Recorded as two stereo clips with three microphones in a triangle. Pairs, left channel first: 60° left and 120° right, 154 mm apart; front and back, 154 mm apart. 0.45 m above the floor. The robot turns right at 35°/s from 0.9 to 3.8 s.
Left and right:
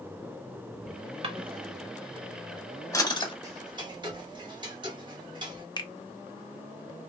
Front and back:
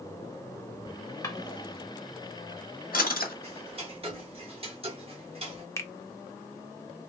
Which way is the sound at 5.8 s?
50° left.